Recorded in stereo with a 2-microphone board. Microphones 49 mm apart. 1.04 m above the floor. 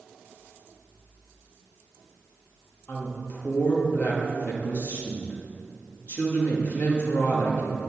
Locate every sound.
2.9 s a woman speaking: 45° left (ahead or behind), 1.8 m